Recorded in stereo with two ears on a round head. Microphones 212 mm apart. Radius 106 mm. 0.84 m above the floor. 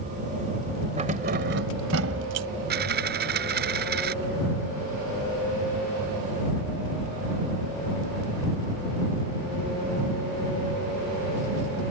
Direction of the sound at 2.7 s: 45° right (ahead or behind).